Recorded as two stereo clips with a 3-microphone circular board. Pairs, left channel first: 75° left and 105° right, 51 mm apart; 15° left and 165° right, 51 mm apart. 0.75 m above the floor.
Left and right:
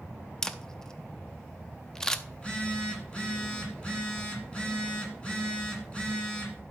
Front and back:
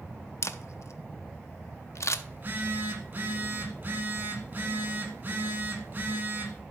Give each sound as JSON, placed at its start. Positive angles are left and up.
{"t": 0.4, "sound": "a camera shutter", "azimuth_deg": -5, "distance_m": 0.5}
{"t": 2.3, "sound": "a phone buzzing", "azimuth_deg": 145, "distance_m": 1.6}